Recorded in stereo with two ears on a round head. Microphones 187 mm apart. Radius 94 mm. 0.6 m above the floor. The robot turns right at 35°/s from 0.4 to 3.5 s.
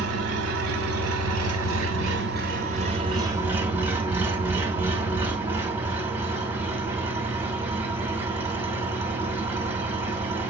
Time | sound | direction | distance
0.0 | an engine running | 120° right | 2.5 m